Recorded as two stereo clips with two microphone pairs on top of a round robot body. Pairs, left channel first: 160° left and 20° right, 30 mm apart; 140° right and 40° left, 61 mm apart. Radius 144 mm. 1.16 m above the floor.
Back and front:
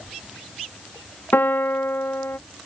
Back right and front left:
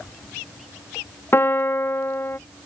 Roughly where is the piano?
Behind.